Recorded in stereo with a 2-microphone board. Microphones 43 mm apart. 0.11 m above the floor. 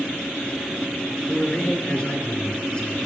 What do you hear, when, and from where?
1.3 s a man speaking: 25° left (ahead or behind), 2.0 m